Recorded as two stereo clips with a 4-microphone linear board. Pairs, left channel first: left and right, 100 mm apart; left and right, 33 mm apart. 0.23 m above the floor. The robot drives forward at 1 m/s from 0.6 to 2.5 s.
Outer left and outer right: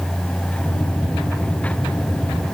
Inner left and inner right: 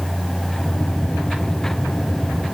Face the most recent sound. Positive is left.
No sound to turn to.